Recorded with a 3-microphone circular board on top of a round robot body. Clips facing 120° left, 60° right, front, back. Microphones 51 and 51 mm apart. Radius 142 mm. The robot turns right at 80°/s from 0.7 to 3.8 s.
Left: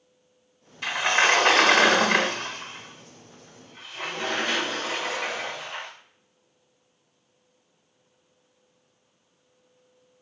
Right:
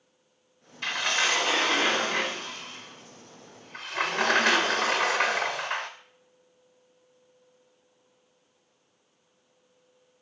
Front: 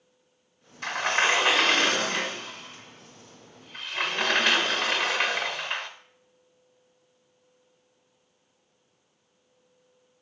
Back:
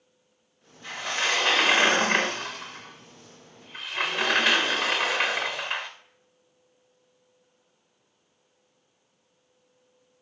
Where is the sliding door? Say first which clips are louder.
Left 5 dB, front 4 dB; 35° left, 0.7 m; by 5.9 s 90° right, 0.7 m.